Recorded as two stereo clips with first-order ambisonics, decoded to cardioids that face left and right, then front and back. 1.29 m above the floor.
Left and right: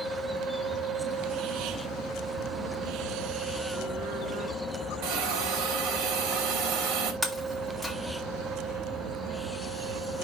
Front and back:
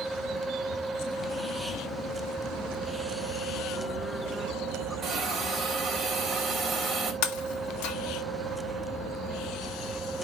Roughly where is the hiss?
Right.